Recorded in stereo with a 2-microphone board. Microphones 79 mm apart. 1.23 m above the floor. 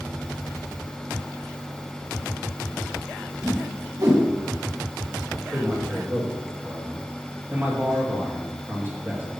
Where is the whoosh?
55° right (ahead or behind), 1.9 m.